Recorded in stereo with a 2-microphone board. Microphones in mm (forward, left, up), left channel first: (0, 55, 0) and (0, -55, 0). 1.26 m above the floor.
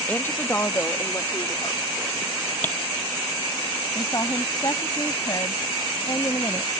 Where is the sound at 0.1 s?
15° left (ahead or behind); by 2.3 s 40° left (ahead or behind).